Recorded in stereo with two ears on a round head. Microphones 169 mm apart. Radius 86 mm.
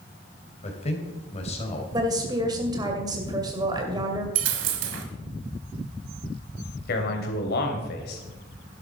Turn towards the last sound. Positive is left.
turn(degrees=60)  # may be behind; listen again after turning